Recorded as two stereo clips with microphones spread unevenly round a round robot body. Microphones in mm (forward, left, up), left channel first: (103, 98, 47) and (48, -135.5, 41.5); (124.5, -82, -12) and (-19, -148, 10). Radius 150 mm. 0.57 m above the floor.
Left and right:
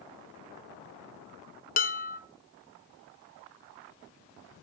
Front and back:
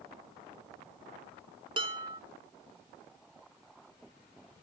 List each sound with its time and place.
1.8 s dishes clattering: 130° left, 0.7 m